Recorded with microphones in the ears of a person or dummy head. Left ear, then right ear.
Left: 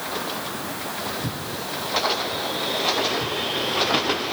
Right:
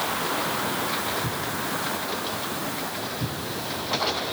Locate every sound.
Only background noise.